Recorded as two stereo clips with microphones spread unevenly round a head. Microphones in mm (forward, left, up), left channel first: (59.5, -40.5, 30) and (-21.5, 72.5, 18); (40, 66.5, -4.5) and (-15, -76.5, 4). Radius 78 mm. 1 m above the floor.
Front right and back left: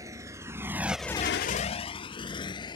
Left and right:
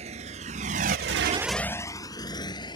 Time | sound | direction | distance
0.0 | a motorcycle | 160° right | ?